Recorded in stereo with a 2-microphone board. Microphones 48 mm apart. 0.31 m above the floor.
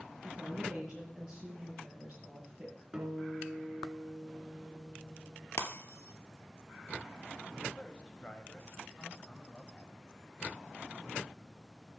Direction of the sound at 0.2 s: 20° right (ahead or behind).